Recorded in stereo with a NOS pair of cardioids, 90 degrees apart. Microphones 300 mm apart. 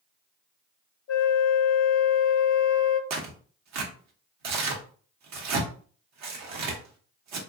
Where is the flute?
50° left, 0.6 m.